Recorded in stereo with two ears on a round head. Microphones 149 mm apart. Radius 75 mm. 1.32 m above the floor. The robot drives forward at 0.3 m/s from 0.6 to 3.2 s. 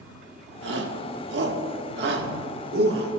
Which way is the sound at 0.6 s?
75° right (ahead or behind).